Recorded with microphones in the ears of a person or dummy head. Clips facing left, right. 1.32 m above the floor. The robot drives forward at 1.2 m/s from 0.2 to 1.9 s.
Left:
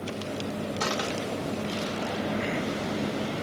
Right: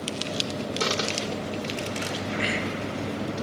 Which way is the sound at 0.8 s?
40° right (ahead or behind).